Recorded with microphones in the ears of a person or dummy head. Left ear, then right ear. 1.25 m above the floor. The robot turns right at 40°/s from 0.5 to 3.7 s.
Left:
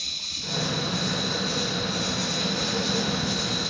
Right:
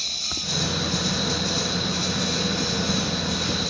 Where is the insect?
75° right, 3 m; by 3.7 s 55° left, 3 m.